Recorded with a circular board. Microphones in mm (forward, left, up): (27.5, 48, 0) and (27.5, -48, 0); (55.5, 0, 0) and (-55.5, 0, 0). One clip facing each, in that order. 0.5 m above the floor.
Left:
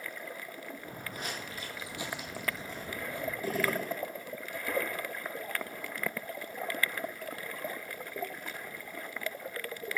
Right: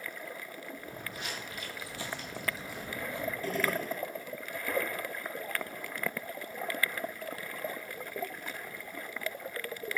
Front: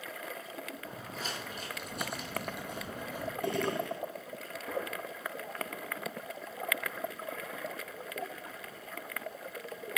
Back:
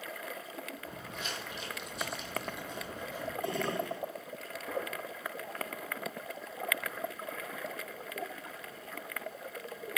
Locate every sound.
0.8 s footsteps: 55° left, 1.2 m; by 3.3 s 30° right, 1.1 m
3.4 s a gunshot: 15° left, 1.1 m